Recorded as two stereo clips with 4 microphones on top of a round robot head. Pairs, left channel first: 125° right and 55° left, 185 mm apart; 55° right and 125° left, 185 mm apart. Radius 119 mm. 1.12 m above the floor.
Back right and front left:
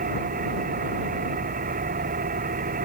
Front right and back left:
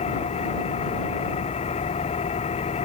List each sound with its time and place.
0.0 s an engine running: 5° left